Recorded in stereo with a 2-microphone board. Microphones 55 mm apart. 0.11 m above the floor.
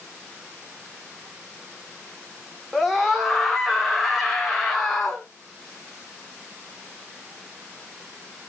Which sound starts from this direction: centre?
A scream, at 2.7 s.